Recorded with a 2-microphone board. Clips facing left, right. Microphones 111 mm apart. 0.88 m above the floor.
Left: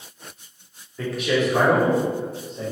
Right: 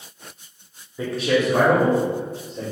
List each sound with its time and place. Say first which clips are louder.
1.0 s a man speaking: right 2 dB; 10° right (ahead or behind), 0.7 m; by 2.7 s 75° right (ahead or behind), 2 m